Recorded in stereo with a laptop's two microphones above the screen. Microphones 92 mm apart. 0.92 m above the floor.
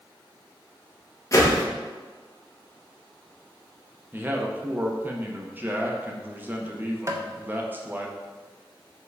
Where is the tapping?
30° right (ahead or behind), 0.6 m.